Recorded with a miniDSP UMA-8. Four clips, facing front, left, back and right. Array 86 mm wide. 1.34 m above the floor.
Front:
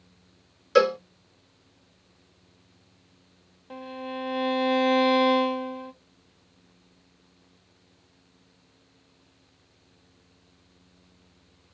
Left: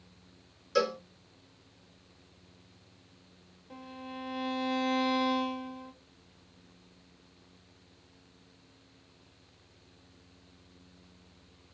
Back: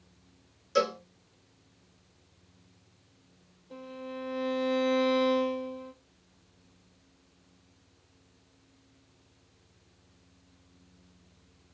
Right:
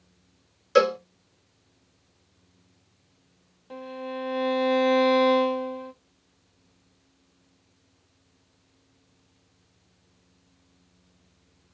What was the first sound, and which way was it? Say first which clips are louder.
A cowbell: right 9 dB, front 8 dB; 50° right.